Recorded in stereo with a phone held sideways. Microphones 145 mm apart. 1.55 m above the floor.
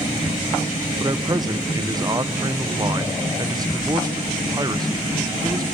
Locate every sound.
1.0 s a man speaking: 30° right (ahead or behind), 0.8 m